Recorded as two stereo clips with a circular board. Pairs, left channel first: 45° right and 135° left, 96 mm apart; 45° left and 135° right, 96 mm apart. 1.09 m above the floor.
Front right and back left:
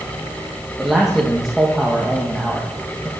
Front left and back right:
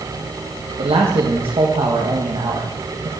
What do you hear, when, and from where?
0.8 s a man speaking: 140° right, 1.3 m